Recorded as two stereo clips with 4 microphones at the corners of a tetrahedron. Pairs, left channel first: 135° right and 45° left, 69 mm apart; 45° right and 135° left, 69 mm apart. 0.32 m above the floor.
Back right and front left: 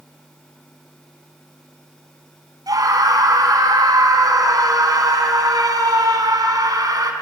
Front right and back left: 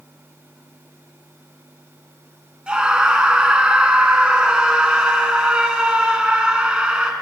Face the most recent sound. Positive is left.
turn(degrees=60)